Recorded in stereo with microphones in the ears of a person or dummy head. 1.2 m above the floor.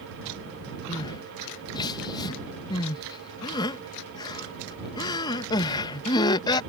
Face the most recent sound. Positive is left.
turn(degrees=30)  # may be behind; listen again after turning